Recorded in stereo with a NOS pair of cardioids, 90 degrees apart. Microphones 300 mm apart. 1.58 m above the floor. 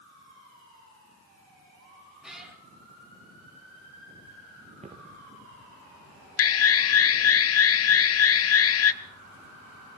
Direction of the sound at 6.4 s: 50° left.